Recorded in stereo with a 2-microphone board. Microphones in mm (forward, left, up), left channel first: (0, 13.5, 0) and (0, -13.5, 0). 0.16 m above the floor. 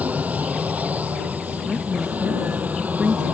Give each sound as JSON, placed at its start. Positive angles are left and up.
{"t": 0.0, "sound": "an aircraft", "side_deg": -75}
{"t": 1.7, "sound": "a woman speaking", "side_deg": -30}